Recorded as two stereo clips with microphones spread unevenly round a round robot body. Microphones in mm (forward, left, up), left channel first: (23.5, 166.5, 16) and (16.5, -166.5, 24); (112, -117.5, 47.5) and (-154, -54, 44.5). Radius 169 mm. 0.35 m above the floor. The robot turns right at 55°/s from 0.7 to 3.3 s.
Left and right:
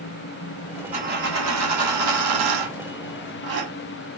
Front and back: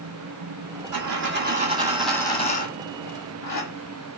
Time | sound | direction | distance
0.9 | a dropped coin | 165° right | 1.3 m